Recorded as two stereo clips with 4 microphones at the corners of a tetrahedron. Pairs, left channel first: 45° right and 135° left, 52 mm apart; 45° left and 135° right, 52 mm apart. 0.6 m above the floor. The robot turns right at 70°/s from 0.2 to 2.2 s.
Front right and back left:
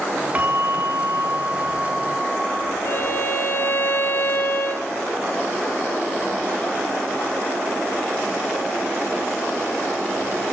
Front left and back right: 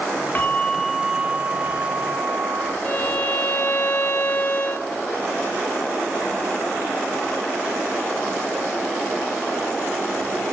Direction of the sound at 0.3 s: 85° left.